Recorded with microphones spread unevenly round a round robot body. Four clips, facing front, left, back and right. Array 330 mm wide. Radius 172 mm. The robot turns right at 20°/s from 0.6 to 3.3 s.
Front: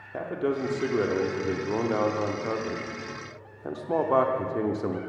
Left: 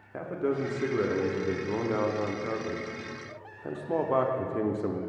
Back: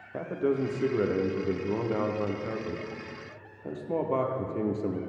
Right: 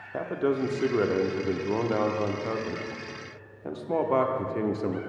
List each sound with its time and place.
0.1 s a man speaking: 70° right, 0.7 m; by 5.0 s 15° right, 0.7 m